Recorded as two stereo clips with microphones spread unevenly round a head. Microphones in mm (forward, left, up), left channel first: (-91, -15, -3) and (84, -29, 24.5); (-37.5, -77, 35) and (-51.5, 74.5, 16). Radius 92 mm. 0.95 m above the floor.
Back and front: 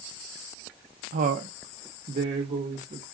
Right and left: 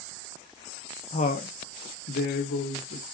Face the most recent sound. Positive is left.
turn(degrees=-70)